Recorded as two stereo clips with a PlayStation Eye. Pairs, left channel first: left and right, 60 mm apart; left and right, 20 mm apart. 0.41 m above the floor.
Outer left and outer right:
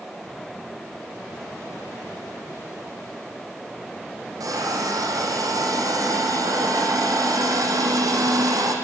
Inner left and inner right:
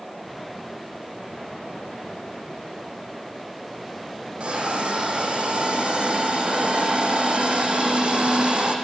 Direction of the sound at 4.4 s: 75° right (ahead or behind).